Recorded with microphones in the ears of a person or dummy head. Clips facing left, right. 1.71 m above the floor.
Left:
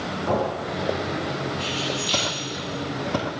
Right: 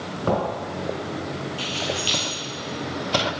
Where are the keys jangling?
40° right (ahead or behind), 1.9 m.